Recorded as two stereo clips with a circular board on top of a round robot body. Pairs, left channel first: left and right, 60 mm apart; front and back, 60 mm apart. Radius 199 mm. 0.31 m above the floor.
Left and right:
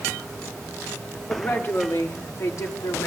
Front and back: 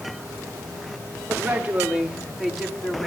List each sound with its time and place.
1.3 s a woman speaking: 125° left, 1.9 m; by 3.1 s 80° left, 2.5 m